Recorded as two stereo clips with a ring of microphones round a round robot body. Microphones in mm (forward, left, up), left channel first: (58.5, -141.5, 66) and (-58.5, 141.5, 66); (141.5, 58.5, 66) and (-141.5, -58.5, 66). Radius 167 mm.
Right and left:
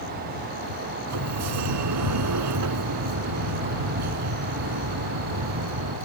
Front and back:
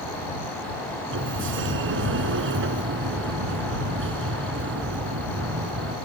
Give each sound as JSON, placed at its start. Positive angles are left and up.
{"t": 1.1, "sound": "a sliding door", "azimuth_deg": 150}